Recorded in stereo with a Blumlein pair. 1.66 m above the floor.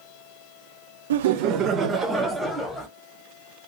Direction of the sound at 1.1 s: 65° right.